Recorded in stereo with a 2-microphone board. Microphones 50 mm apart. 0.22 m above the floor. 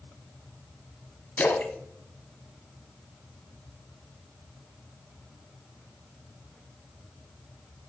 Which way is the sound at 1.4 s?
40° left (ahead or behind).